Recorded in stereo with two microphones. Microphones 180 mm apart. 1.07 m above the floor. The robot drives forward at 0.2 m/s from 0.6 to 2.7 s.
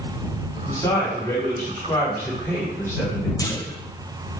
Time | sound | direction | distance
0.7 | a man speaking | 20° left (ahead or behind) | 2 m
3.4 | a clunk | 20° left (ahead or behind) | 0.6 m